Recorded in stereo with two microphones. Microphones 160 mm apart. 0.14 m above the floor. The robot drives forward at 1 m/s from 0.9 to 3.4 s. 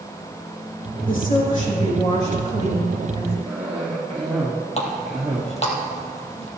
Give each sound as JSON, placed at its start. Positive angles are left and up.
{"t": 1.1, "sound": "a woman speaking", "side_deg": 60, "distance_m": 5.0}
{"t": 3.5, "sound": "a cough", "side_deg": -10, "distance_m": 2.0}
{"t": 4.8, "sound": "a running tap", "side_deg": 40, "distance_m": 2.5}